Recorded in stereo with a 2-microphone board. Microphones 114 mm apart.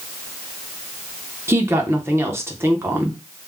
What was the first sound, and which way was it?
A woman speaking, 20° right (ahead or behind).